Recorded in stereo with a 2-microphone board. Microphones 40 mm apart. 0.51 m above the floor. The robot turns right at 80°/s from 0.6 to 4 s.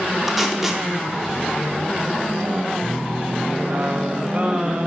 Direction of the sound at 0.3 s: 5° right (ahead or behind).